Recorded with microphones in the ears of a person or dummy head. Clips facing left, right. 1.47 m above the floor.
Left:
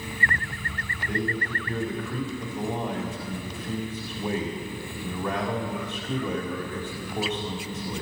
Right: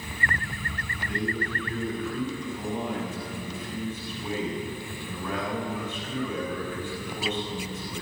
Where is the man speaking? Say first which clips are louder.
Left 1 dB; 50° left (ahead or behind), 3.5 m.